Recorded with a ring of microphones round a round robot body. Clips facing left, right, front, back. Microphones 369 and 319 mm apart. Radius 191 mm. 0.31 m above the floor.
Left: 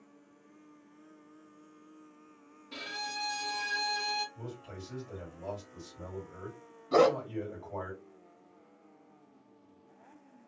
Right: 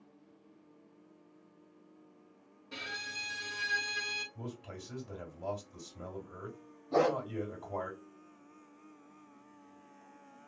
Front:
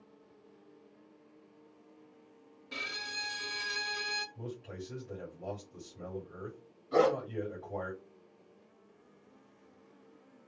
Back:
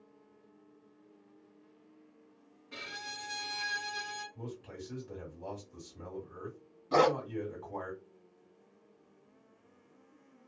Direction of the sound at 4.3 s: 120° right.